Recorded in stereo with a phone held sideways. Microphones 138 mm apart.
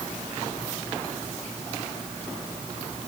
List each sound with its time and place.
Only background noise.